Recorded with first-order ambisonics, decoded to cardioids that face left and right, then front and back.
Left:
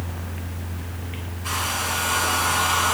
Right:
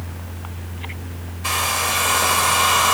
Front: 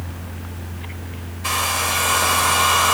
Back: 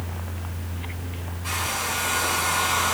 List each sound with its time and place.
1.4 s a hair dryer: 45° right, 2.5 m